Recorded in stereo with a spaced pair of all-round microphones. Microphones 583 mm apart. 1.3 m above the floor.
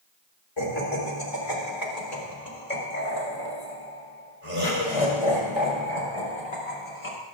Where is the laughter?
65° left (ahead or behind), 3.5 m; by 7.2 s 75° left (ahead or behind), 5.5 m.